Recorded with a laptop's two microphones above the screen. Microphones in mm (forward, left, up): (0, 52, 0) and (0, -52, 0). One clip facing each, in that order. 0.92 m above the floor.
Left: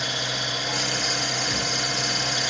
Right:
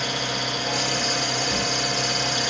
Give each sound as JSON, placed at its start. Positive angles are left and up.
{"t": 0.0, "sound": "an engine running", "side_deg": -50, "distance_m": 1.8}